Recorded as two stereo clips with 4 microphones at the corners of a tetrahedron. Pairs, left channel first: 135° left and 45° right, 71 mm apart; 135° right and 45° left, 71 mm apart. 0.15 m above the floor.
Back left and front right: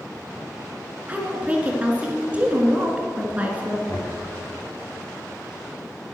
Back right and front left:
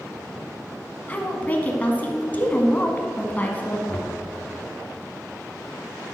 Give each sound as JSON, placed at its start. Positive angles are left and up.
{"t": 1.1, "sound": "a woman speaking", "azimuth_deg": -95, "distance_m": 1.8}
{"t": 3.9, "sound": "knocking", "azimuth_deg": 145, "distance_m": 2.5}